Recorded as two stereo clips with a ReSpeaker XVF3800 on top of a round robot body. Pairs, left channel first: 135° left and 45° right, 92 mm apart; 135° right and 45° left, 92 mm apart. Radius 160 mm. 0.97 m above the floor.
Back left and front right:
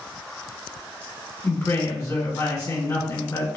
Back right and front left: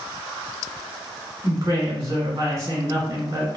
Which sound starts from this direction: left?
A woman speaking, at 1.4 s.